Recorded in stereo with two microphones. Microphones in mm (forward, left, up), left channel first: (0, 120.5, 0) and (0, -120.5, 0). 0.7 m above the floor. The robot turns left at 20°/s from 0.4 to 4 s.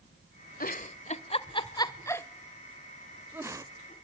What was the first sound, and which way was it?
A giggle, 40° left (ahead or behind).